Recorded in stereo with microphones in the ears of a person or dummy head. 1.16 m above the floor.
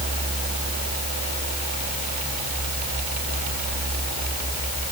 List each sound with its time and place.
Only background noise.